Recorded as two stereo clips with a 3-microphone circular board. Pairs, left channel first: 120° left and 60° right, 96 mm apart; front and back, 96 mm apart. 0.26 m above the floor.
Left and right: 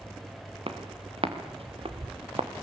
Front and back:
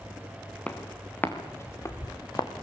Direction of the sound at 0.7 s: 75° right.